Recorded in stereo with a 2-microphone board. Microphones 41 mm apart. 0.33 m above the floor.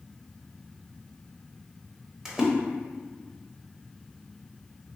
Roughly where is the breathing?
I don't hear breathing.